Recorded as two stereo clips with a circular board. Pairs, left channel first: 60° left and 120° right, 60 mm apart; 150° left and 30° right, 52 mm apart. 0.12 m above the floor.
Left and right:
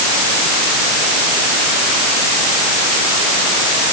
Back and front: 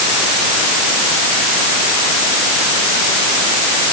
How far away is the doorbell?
No doorbell in this recording.